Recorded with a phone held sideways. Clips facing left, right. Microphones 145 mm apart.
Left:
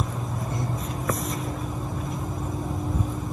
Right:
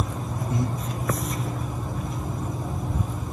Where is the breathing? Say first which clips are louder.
Right 5 dB; 10° right (ahead or behind), 4.5 m.